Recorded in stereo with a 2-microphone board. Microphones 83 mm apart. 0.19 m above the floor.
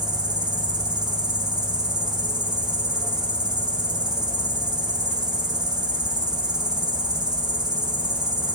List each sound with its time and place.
0.0 s an insect: 60° right (ahead or behind), 2.5 m